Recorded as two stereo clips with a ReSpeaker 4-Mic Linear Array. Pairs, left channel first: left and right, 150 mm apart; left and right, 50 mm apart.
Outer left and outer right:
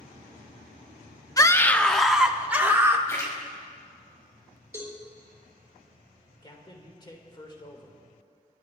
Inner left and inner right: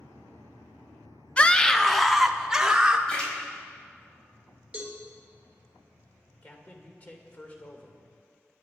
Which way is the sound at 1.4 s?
25° left (ahead or behind).